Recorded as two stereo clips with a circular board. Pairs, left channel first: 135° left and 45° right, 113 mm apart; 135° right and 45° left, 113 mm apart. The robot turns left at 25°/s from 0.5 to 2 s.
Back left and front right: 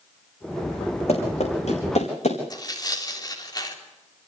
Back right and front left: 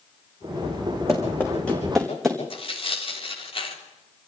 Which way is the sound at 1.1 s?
160° left.